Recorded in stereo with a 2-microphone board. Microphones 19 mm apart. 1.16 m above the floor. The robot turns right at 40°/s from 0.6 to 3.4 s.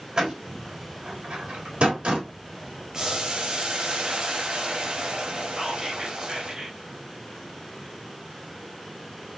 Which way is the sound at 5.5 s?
45° right (ahead or behind).